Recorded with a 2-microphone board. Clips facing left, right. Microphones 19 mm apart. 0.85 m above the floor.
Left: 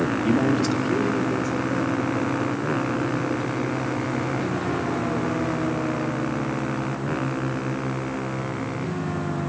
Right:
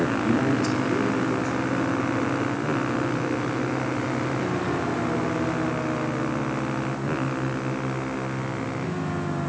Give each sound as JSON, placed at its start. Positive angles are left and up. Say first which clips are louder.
{"t": 0.2, "sound": "a man speaking", "louder": "left 4 dB", "side_deg": 30, "distance_m": 1.1}